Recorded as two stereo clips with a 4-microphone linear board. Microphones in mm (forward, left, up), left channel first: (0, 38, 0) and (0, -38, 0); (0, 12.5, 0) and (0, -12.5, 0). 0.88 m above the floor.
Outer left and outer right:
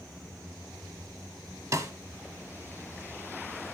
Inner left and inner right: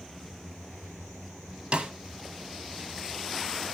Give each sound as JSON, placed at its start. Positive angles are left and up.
{"t": 1.7, "sound": "a snare drum", "side_deg": -45, "distance_m": 1.0}